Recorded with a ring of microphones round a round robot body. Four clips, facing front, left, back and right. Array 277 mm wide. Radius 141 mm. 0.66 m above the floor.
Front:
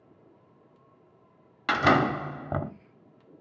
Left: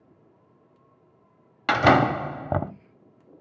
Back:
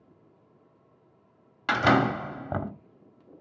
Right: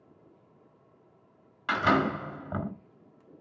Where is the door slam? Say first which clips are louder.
Left 7 dB, even; 85° left, 1.3 m.